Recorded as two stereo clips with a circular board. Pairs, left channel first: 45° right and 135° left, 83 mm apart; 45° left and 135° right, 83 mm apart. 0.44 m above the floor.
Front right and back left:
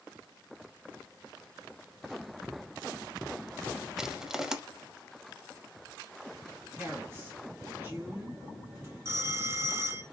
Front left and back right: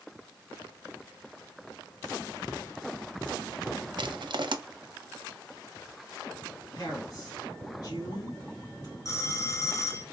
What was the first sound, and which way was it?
Crushing, 145° right.